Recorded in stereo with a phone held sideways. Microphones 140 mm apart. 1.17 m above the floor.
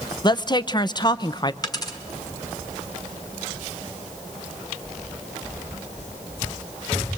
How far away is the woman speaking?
About 0.6 m.